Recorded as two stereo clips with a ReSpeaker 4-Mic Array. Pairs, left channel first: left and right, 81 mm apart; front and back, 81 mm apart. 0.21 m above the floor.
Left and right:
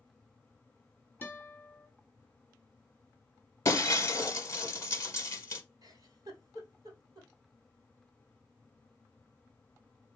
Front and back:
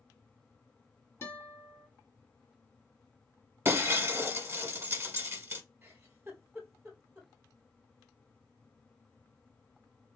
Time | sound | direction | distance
1.2 | a guitar | 35° left | 1.2 m
3.6 | breaking glass | 125° left | 0.8 m
5.8 | a giggle | 120° right | 1.2 m